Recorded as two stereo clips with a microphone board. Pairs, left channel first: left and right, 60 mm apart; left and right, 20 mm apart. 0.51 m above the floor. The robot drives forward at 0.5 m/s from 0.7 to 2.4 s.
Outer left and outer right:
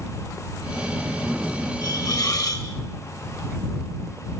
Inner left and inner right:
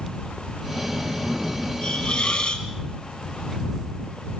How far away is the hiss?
About 5.5 m.